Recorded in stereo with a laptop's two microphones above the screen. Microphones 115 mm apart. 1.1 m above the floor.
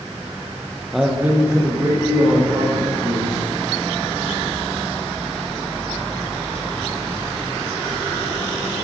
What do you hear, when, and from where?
0.9 s a man speaking: centre (ahead or behind), 0.9 m; by 3.4 s 40° right (ahead or behind), 3 m